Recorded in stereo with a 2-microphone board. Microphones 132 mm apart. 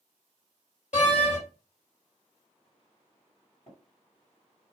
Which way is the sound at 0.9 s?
60° left (ahead or behind).